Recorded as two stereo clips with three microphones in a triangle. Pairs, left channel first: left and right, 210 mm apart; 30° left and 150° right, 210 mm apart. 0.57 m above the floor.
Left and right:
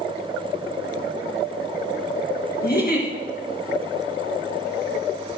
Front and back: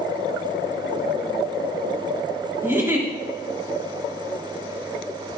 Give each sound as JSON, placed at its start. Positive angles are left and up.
{"t": 2.6, "sound": "a giggle", "azimuth_deg": 130, "distance_m": 2.5}